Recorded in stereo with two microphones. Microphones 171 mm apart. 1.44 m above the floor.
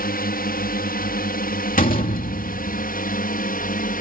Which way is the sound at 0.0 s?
65° left (ahead or behind).